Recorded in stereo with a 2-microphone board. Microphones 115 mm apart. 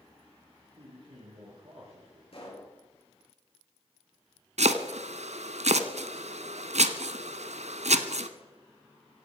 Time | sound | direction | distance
0.8 | a man speaking | 60° right (ahead or behind) | 6 m
2.3 | a pop | 55° left (ahead or behind) | 7.5 m
4.6 | chopping | 85° right | 1.1 m